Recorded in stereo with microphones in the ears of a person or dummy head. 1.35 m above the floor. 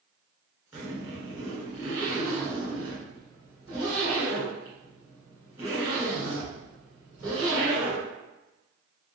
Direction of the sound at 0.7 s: 5° right (ahead or behind).